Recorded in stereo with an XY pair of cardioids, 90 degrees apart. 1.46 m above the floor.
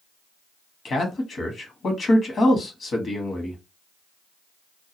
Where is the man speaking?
55° left, 1.1 m.